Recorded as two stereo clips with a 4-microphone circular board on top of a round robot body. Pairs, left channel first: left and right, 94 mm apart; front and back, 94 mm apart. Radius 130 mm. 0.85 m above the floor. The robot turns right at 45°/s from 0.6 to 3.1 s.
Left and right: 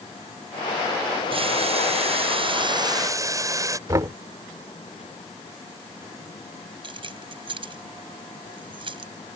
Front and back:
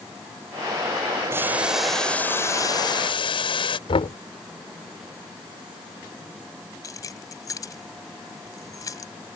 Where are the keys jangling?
55° right.